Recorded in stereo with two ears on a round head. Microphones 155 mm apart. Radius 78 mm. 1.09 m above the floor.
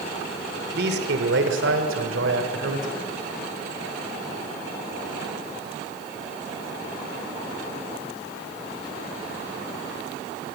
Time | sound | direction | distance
0.7 | a man speaking | 60° right (ahead or behind) | 3 m